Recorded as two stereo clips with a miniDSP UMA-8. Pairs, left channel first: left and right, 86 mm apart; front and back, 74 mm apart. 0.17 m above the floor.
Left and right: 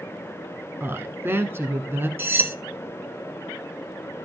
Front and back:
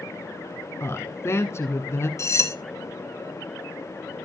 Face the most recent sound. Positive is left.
turn(degrees=-35)